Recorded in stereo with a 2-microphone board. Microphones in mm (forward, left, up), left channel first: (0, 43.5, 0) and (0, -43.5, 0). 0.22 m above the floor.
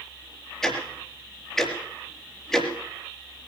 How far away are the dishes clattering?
No dishes clattering in this recording.